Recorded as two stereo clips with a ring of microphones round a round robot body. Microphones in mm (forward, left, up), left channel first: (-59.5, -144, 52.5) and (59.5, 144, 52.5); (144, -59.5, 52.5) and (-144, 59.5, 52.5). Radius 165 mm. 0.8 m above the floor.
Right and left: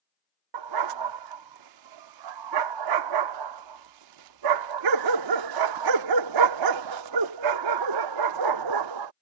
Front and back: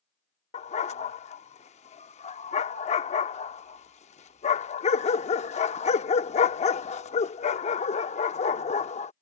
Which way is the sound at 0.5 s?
45° left.